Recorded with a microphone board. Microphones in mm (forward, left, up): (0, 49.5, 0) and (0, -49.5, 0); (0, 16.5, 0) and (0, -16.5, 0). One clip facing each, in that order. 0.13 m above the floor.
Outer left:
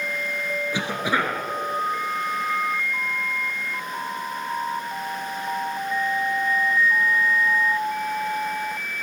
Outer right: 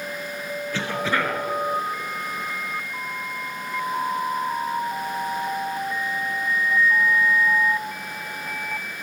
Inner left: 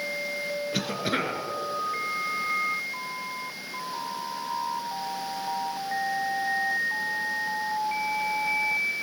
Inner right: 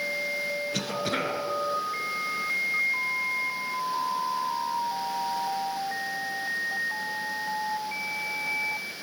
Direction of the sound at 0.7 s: 15° left (ahead or behind).